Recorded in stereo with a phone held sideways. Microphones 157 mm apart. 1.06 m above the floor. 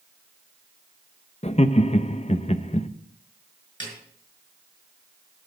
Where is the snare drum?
30° left (ahead or behind), 5 m.